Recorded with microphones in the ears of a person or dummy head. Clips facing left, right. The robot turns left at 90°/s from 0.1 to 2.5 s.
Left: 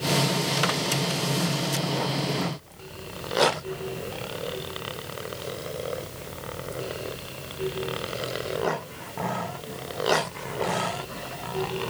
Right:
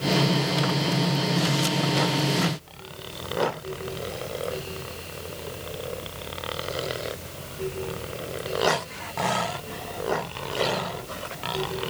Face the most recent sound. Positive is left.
No sound to turn to.